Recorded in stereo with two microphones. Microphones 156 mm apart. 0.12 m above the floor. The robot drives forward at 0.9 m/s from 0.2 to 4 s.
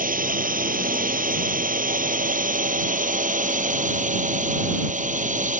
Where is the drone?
65° right (ahead or behind); by 5.6 s 55° right (ahead or behind).